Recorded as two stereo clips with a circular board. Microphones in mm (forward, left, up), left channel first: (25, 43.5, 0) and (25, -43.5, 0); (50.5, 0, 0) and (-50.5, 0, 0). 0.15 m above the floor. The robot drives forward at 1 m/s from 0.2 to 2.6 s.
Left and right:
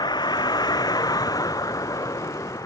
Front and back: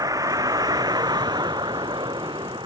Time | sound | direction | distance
0.0 | a vehicle | 125° left | ?